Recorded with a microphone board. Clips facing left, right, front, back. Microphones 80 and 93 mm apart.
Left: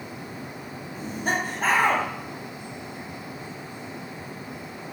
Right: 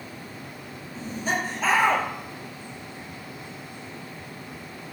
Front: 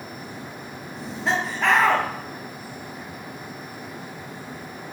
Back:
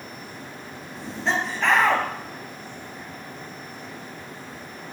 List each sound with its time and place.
0.9 s laughter: 85° left, 2.5 m